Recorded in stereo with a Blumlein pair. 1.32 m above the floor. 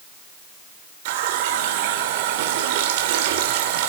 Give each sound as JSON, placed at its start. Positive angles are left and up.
{"t": 1.1, "sound": "a running tap", "azimuth_deg": -50, "distance_m": 3.0}